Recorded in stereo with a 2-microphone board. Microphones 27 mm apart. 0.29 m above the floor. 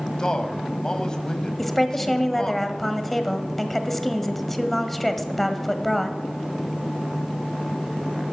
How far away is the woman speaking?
About 1.2 m.